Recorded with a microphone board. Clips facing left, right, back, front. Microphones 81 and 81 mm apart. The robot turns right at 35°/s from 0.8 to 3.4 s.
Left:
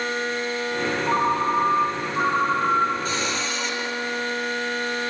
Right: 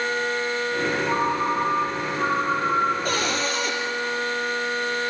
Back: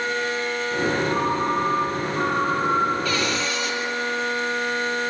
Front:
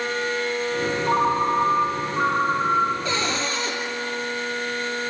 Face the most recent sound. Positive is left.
turn(degrees=-55)